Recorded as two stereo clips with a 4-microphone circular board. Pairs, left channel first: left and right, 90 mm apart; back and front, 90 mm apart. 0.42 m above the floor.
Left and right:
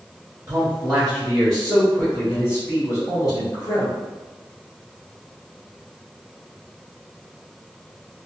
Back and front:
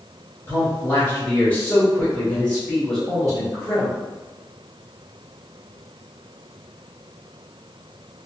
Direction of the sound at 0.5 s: 135° right.